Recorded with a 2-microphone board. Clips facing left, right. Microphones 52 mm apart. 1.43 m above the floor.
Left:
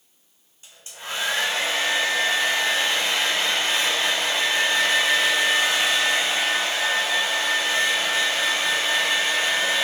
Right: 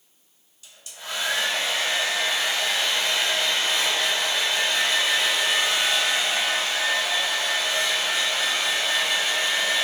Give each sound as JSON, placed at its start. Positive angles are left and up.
{"t": 0.6, "sound": "a hair dryer", "side_deg": 30, "distance_m": 1.0}